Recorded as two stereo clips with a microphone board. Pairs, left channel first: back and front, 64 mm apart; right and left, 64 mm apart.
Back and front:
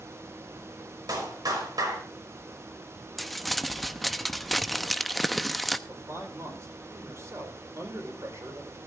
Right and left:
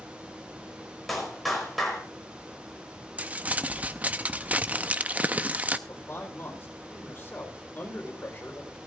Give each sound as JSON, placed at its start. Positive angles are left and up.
{"t": 1.1, "sound": "a clap", "azimuth_deg": -5, "distance_m": 5.0}
{"t": 3.2, "sound": "crumpling", "azimuth_deg": 90, "distance_m": 0.6}
{"t": 5.9, "sound": "a man speaking", "azimuth_deg": -35, "distance_m": 4.0}